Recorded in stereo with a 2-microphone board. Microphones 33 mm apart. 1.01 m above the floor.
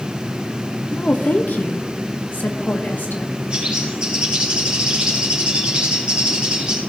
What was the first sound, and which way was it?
A woman speaking, 55° left (ahead or behind).